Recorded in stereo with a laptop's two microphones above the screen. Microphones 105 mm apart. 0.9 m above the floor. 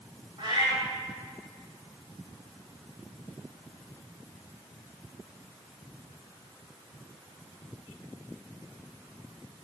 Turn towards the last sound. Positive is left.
turn(degrees=-50)  # may be behind; listen again after turning